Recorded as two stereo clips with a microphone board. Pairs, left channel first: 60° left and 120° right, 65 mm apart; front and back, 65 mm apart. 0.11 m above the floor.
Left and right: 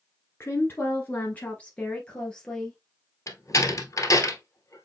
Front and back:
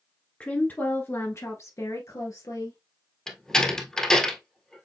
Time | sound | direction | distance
0.4 | a woman speaking | 55° left | 1.3 m
3.3 | a door slam | 80° left | 1.3 m